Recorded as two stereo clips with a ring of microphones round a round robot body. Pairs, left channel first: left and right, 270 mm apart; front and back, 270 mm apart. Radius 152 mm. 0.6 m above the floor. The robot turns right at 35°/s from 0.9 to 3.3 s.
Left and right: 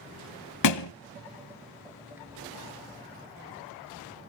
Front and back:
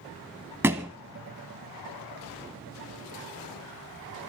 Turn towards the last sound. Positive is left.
turn(degrees=180)